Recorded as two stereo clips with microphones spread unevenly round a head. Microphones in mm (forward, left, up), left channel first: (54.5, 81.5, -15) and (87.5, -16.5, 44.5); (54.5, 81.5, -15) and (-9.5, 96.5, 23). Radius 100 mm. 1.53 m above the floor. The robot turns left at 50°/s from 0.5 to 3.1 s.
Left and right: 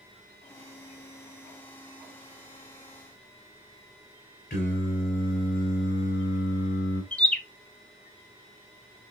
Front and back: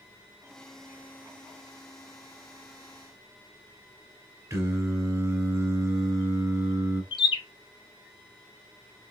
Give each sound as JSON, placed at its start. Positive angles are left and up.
{"t": 4.5, "sound": "singing", "azimuth_deg": 160, "distance_m": 2.0}
{"t": 7.1, "sound": "a bird", "azimuth_deg": -10, "distance_m": 0.5}